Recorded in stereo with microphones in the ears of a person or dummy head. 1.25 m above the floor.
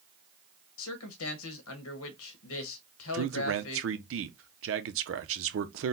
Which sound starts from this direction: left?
A man speaking, at 0.8 s.